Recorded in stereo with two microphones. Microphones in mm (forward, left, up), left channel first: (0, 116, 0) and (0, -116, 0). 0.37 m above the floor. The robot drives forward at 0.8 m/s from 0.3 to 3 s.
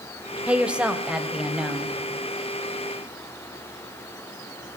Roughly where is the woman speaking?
Centre.